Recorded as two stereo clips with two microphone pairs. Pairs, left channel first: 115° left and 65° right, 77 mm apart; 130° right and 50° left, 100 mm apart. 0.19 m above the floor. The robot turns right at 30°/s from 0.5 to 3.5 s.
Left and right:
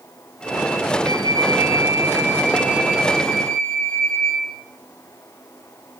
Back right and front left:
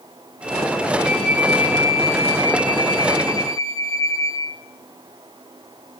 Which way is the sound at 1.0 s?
40° right.